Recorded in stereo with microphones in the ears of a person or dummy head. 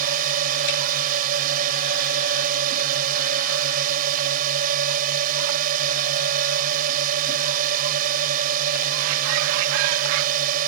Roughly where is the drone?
Right.